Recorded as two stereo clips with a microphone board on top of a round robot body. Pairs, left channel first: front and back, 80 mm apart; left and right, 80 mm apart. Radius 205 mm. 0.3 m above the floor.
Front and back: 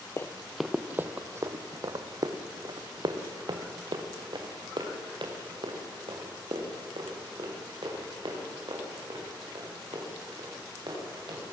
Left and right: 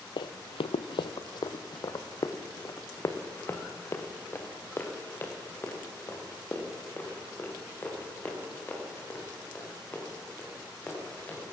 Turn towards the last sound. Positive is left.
turn(degrees=160)